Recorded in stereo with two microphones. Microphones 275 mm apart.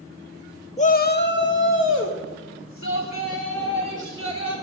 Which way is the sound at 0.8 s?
25° left (ahead or behind).